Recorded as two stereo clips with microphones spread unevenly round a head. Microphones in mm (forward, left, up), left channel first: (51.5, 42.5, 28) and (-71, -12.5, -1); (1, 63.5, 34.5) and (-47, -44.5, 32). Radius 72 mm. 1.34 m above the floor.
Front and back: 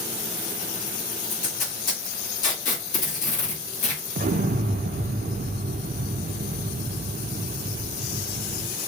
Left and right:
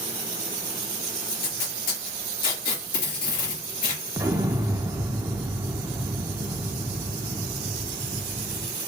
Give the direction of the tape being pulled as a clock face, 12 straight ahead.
10 o'clock.